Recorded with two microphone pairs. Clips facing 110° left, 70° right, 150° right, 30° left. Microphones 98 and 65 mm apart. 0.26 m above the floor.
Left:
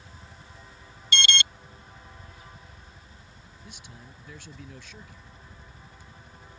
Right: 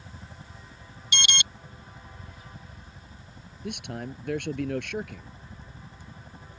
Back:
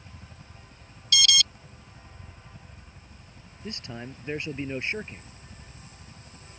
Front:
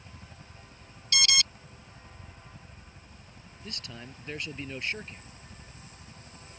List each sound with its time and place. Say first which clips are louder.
0.0 s a helicopter: right 3 dB, back 1 dB; 55° right
1.1 s an alarm: left 3 dB, back 4 dB; 15° right
3.6 s a man speaking: right 15 dB, back 6 dB; 85° right